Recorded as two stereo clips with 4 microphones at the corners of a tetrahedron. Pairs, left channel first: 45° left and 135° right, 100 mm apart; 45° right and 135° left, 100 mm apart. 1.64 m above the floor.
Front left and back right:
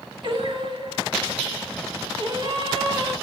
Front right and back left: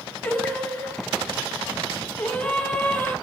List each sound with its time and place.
0.2 s singing: 115° right, 2.5 m